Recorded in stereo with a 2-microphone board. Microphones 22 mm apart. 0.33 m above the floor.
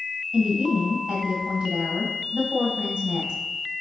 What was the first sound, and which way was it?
A woman speaking, 60° right (ahead or behind).